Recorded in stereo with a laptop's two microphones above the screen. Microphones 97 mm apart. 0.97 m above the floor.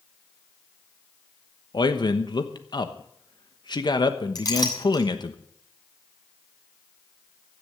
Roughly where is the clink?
Left.